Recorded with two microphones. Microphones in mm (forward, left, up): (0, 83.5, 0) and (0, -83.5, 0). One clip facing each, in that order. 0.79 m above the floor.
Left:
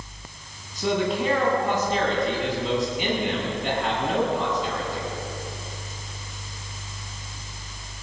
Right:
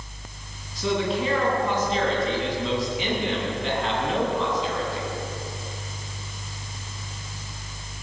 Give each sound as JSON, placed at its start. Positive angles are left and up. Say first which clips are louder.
{"t": 0.8, "sound": "a man speaking", "louder": "left 1 dB", "side_deg": 50, "distance_m": 9.0}